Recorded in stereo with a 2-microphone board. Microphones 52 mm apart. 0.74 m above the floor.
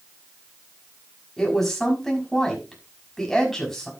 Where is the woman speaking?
10° left (ahead or behind), 6 m.